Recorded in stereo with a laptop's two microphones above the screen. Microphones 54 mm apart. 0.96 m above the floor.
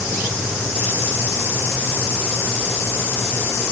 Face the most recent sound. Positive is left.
No sound to turn to.